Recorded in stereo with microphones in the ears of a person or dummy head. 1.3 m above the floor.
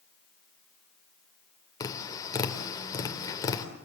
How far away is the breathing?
No breathing in this recording.